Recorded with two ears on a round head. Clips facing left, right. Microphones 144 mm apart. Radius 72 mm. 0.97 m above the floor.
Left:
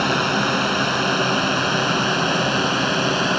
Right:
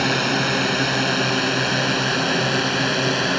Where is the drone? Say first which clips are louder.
Left 1 dB; 15° right (ahead or behind).